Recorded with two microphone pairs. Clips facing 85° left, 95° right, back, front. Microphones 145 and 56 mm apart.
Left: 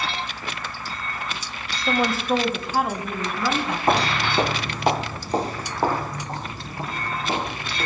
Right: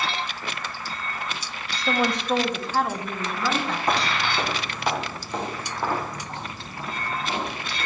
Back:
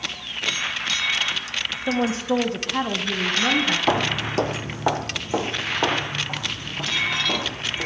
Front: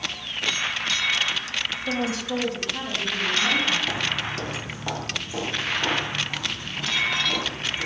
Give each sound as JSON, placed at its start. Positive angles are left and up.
{"t": 1.9, "sound": "a woman speaking", "azimuth_deg": 175, "distance_m": 0.9}
{"t": 3.9, "sound": "footsteps", "azimuth_deg": 145, "distance_m": 0.7}